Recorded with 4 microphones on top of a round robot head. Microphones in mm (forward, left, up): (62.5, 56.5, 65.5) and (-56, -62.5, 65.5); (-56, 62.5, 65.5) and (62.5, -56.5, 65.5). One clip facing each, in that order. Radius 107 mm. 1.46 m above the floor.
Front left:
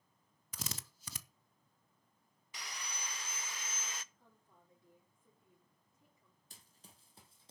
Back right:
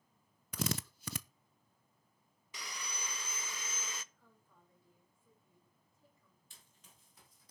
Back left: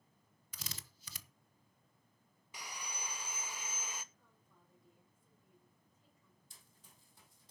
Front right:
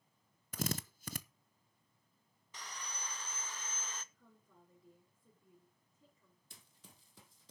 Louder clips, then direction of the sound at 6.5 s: Front left 6 dB, front right 8 dB; 10° right.